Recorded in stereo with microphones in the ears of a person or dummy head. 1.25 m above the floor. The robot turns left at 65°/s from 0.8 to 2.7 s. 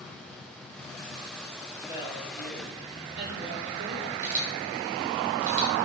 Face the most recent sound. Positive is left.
turn(degrees=-45)  # may be behind; listen again after turning